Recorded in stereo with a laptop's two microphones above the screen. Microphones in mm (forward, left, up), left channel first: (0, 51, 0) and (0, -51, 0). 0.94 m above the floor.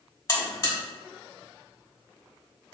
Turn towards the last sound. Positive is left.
turn(degrees=35)  # may be behind; listen again after turning